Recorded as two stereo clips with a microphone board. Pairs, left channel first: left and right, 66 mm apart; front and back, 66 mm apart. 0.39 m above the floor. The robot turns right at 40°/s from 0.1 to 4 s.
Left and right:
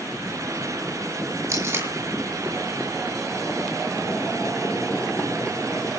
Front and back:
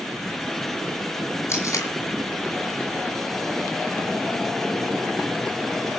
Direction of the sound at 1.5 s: 50° right.